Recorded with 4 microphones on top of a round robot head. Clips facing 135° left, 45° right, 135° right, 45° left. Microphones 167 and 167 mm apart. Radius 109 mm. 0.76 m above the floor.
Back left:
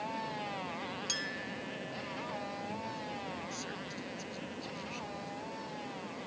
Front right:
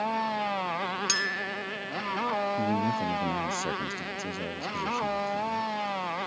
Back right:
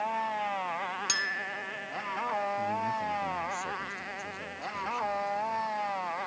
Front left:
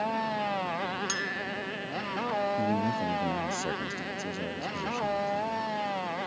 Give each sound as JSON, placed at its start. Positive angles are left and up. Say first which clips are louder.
{"t": 0.0, "sound": "a motorcycle", "louder": "front right 9 dB, front left 2 dB", "azimuth_deg": -10}
{"t": 1.1, "sound": "a clink", "louder": "front right 6 dB, front left 5 dB", "azimuth_deg": -60}
{"t": 2.6, "sound": "a man speaking", "louder": "front right 13 dB, front left 4 dB", "azimuth_deg": -5}